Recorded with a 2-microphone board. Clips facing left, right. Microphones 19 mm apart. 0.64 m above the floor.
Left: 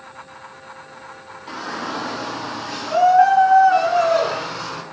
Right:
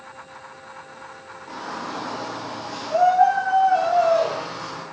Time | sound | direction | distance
1.5 | a shout | 80° left | 6.5 m